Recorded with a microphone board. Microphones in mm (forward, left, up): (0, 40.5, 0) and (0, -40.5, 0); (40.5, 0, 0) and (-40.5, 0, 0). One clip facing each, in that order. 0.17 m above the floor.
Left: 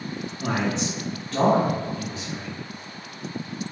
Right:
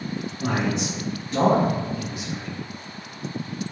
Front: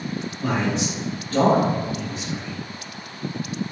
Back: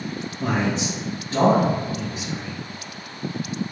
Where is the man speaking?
160° right, 1.4 m; by 2.5 s 65° right, 1.1 m.